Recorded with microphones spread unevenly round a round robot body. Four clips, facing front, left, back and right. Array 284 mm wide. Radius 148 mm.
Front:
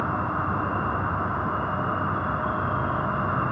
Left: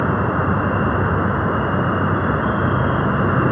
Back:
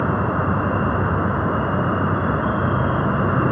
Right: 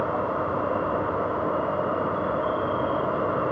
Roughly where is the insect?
Behind left.